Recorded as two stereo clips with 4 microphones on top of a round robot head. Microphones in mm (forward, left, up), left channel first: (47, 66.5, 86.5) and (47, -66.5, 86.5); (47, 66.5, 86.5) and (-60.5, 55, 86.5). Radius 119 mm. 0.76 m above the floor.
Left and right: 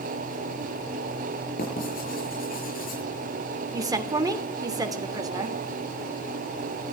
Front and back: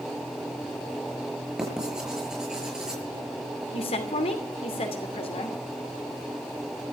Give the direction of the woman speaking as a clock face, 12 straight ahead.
1 o'clock.